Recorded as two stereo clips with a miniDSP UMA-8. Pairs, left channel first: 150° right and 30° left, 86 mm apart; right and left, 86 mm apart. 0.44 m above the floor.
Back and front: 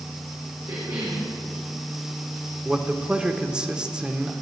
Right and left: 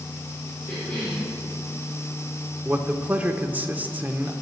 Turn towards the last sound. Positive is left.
turn(degrees=90)